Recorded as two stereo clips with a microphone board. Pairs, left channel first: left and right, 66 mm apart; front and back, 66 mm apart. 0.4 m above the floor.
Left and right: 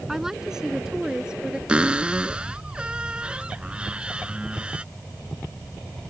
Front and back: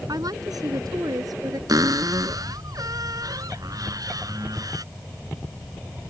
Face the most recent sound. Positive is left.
turn(degrees=-165)